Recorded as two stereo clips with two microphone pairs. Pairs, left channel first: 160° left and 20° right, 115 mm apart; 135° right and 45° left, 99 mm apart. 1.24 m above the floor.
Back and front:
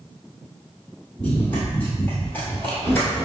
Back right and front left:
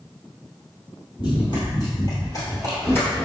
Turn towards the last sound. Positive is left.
turn(degrees=-175)